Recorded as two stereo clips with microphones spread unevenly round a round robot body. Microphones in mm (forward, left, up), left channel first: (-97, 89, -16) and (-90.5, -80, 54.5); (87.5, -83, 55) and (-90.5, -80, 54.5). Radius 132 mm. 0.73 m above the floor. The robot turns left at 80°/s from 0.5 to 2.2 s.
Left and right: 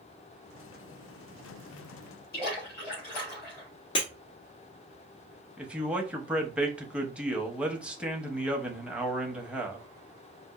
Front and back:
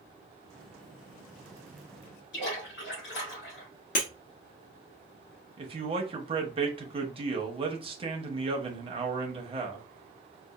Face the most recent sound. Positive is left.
turn(degrees=155)